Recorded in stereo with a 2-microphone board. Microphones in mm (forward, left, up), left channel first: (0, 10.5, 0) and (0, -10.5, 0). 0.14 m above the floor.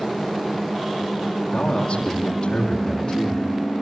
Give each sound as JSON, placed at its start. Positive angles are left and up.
{"t": 1.5, "sound": "a man speaking", "side_deg": 45, "distance_m": 6.0}